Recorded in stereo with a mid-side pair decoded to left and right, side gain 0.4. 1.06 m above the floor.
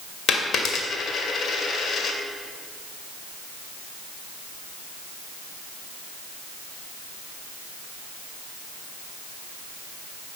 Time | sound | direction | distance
0.3 | a dropped coin | 65° left | 2 m